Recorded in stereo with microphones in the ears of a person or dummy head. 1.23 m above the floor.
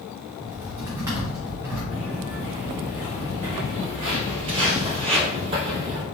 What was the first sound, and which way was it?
Typing on a keyboard, 10° right (ahead or behind).